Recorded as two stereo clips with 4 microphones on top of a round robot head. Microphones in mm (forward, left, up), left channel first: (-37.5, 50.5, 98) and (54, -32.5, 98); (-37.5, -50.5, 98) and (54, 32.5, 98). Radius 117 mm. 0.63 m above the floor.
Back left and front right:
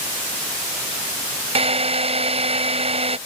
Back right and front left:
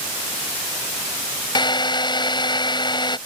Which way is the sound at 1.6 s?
85° right.